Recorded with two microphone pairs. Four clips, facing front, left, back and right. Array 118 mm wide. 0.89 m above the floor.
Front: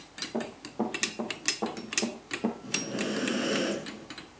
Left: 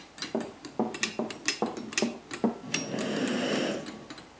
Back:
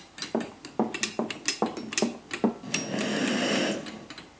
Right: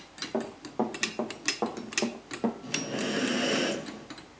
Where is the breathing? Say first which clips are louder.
Even, back 2 dB; 175° right, 5 m.